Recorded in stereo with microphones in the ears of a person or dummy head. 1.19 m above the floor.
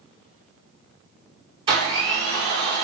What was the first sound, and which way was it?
A blender, 35° right (ahead or behind).